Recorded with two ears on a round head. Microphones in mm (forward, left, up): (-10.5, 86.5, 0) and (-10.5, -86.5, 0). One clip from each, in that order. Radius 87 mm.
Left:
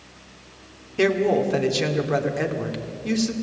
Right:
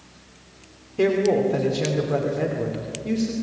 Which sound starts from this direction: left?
A woman speaking, at 1.0 s.